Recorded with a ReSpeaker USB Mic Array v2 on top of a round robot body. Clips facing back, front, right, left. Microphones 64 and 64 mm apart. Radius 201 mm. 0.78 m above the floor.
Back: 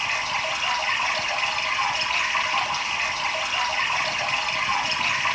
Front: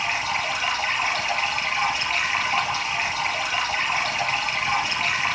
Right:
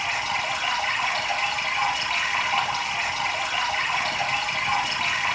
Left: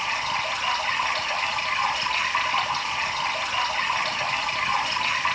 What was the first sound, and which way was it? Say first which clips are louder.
Running water: front 1 dB, even; 65° right.